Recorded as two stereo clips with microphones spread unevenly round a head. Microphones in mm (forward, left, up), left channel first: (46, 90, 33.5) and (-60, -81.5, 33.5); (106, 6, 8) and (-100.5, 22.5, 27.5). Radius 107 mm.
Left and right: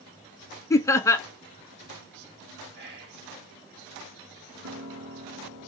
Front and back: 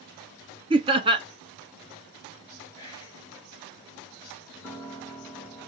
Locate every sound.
0.7 s laughter: 120° left, 0.6 m
2.8 s whispering: 80° right, 1.4 m
4.6 s a piano: 100° right, 2.0 m